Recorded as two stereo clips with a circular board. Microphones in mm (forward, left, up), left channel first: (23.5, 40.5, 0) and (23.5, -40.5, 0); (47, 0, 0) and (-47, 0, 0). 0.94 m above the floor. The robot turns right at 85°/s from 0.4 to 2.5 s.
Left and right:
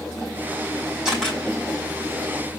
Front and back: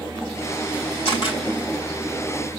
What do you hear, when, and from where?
1.1 s a camera shutter: 10° right, 4 m; by 1.4 s 20° left, 4 m